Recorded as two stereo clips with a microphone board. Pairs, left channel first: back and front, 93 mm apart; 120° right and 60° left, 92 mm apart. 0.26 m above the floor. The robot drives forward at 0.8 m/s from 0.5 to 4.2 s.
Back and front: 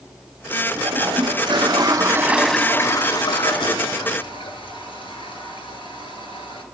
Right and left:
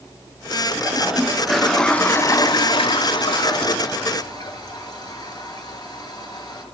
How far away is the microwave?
No microwave in this recording.